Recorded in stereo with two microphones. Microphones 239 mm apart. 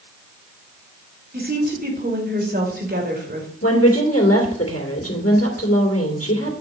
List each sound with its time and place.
1.3 s a woman speaking: 40° right (ahead or behind), 2.5 m
3.6 s a woman speaking: 70° left (ahead or behind), 2.5 m